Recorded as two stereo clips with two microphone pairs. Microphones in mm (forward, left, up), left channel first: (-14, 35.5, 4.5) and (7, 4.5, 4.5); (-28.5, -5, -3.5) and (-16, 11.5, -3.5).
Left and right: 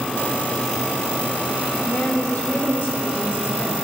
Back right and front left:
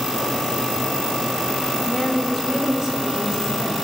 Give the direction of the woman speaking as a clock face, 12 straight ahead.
7 o'clock.